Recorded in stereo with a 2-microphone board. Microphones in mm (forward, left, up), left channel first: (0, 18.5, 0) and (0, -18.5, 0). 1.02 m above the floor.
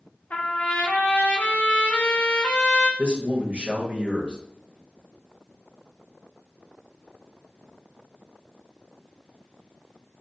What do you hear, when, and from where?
0.3 s a trumpet: 45° left (ahead or behind), 0.5 m
3.0 s a man speaking: 30° right (ahead or behind), 0.8 m